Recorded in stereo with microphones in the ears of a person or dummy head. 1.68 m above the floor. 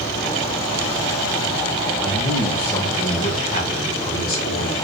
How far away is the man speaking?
About 1.0 m.